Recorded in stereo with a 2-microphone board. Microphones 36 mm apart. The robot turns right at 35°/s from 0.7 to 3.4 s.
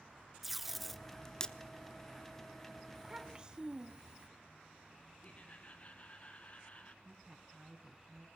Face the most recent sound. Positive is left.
turn(degrees=-20)  # may be behind; listen again after turning